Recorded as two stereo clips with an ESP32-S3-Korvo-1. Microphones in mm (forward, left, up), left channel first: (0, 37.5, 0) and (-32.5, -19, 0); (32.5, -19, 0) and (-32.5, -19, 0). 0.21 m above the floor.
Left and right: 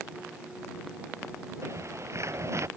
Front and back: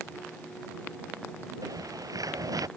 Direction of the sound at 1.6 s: 160° right.